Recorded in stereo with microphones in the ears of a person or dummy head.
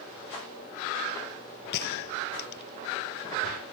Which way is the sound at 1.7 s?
60° left (ahead or behind).